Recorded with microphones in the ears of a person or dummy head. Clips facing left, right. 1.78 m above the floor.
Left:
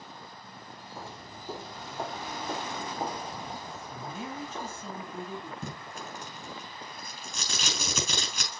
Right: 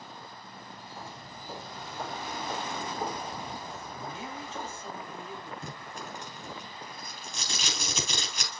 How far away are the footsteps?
About 3 m.